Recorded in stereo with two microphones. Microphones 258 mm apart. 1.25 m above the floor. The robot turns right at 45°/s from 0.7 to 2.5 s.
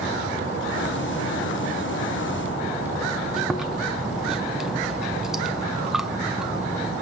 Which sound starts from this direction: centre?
Chewing, at 3.4 s.